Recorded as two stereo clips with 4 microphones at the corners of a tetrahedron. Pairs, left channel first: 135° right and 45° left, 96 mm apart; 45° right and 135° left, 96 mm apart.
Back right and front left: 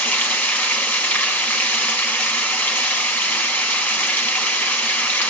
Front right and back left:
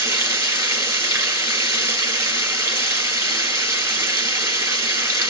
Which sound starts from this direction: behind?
Running water, at 0.0 s.